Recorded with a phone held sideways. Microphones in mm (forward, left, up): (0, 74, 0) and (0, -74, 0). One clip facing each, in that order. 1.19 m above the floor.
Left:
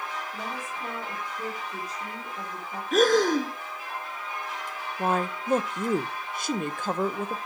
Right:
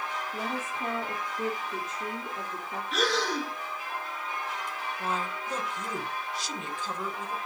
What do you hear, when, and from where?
0.3 s a woman speaking: 25° right (ahead or behind), 2.5 m
2.9 s breathing: 50° left (ahead or behind), 0.8 m
5.0 s a woman speaking: 55° left (ahead or behind), 0.6 m